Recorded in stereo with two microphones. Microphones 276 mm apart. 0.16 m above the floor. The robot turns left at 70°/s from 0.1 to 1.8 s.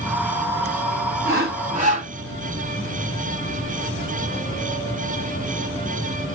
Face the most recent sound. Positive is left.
turn(degrees=-130)